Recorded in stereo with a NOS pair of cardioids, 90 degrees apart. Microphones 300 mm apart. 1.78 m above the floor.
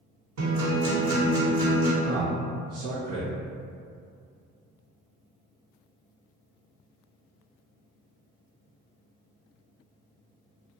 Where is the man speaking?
55° right, 1.1 m.